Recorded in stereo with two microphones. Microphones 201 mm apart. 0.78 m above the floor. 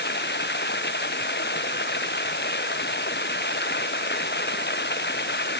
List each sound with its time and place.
0.0 s running water: 60° left (ahead or behind)